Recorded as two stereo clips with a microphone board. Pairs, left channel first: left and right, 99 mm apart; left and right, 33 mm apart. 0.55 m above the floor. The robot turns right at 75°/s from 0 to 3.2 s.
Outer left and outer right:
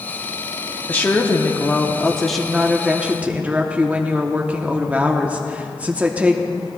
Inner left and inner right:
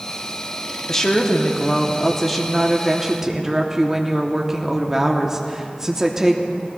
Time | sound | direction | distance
0.9 | a woman speaking | 15° left (ahead or behind) | 0.9 m